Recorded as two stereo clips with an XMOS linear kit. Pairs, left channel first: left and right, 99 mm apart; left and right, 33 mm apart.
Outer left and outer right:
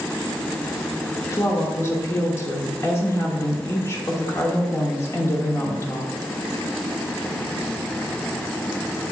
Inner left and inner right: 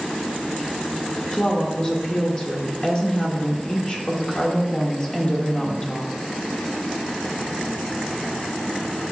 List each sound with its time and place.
1.3 s a woman speaking: 30° left (ahead or behind), 1.2 m